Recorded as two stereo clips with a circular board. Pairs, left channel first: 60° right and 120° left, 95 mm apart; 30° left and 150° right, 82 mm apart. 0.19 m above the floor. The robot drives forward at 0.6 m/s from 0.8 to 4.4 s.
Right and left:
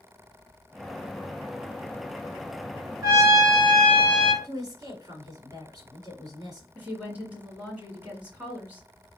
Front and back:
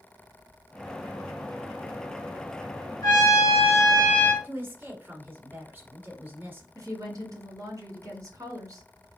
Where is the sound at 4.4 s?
150° left, 1.7 m.